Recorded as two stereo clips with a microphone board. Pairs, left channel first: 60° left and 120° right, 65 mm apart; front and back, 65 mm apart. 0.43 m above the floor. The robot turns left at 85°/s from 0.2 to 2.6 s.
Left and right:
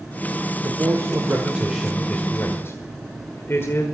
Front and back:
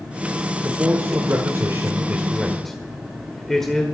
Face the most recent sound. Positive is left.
turn(degrees=85)